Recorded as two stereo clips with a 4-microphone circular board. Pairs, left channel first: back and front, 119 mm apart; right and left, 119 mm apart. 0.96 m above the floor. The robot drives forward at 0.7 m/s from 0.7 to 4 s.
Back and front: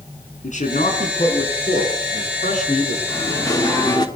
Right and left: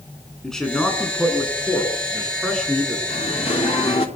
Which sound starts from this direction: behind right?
Singing, at 3.1 s.